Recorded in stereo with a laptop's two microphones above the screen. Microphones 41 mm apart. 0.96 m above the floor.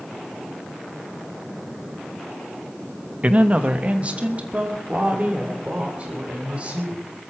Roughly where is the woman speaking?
Right.